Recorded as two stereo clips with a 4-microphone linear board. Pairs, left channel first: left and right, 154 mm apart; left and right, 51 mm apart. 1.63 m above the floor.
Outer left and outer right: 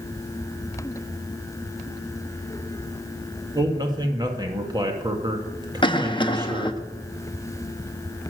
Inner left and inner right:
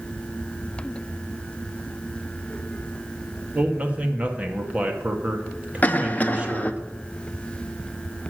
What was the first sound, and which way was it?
A man speaking, 25° right (ahead or behind).